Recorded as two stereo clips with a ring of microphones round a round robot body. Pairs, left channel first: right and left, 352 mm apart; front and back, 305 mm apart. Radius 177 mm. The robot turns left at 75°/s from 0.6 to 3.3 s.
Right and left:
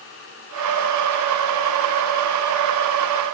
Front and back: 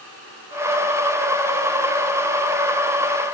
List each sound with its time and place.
Only background noise.